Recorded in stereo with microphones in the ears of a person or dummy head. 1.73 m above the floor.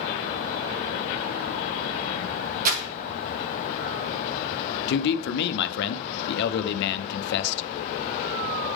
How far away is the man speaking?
About 0.7 m.